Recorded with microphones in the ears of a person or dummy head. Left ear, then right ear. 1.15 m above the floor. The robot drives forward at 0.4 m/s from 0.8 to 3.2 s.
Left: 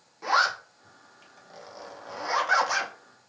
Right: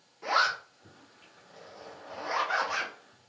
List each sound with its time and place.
0.2 s a zipper: 25° left (ahead or behind), 1.2 m; by 2.9 s 50° left (ahead or behind), 0.7 m